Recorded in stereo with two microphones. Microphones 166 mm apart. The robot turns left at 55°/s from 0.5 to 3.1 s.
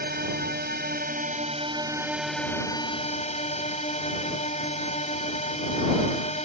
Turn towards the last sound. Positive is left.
turn(degrees=135)